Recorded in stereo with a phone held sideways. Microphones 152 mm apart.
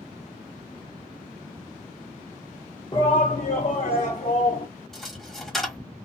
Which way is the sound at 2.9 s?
35° left (ahead or behind).